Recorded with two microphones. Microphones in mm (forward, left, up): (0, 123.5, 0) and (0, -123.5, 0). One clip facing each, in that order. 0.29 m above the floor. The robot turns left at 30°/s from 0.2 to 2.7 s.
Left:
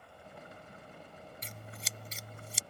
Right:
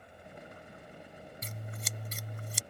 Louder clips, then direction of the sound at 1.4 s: Right 3 dB; 50° right.